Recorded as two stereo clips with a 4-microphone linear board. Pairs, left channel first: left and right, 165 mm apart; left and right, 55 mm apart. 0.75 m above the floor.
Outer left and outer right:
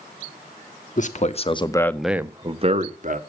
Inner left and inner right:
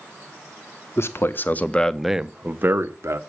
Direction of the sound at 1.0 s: 55° left (ahead or behind).